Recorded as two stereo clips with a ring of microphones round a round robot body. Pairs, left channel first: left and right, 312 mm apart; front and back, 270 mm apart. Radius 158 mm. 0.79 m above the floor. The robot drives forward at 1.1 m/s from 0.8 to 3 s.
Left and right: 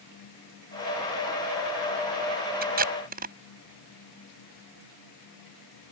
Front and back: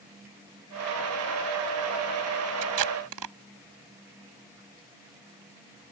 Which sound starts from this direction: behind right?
Tape being pulled, at 2.6 s.